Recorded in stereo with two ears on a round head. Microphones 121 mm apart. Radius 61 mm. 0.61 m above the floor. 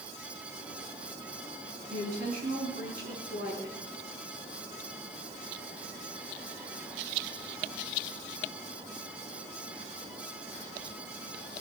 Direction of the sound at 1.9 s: 70° right (ahead or behind).